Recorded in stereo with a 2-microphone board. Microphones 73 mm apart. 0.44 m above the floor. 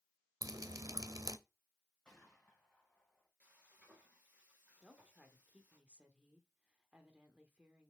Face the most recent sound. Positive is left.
turn(degrees=-15)  # may be behind; listen again after turning